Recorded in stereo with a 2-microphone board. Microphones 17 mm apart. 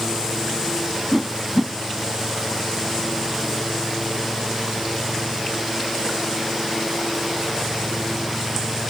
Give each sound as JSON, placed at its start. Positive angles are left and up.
{"t": 1.1, "sound": "a whoosh", "side_deg": -10, "distance_m": 1.2}